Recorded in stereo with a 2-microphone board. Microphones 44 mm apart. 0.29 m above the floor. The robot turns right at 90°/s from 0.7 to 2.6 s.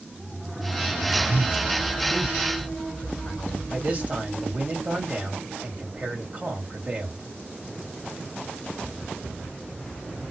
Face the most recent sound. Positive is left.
turn(degrees=-35)  # may be behind; listen again after turning